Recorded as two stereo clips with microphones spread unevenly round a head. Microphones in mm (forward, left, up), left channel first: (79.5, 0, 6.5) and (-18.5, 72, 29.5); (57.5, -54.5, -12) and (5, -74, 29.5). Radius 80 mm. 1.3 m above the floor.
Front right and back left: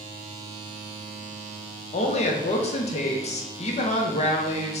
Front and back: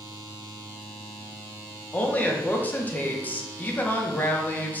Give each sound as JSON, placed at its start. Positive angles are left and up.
{"t": 1.9, "sound": "a woman speaking", "azimuth_deg": -20, "distance_m": 0.8}